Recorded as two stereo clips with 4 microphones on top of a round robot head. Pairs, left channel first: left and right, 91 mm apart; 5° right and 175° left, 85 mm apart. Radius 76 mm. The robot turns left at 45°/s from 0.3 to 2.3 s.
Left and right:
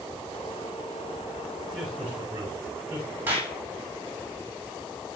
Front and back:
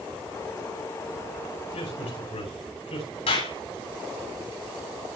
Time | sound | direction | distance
1.7 | a man speaking | 5° left | 9 m
3.3 | a clap | 15° right | 9 m